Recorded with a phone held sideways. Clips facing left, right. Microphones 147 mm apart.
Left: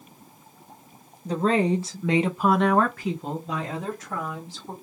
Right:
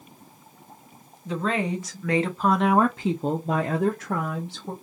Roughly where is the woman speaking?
Left.